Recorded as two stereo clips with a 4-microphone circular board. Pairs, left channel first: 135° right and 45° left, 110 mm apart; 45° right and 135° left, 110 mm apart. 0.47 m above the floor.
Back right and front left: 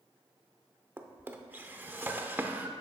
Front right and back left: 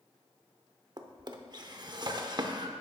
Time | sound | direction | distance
1.0 | a drawer | 110° left | 0.6 m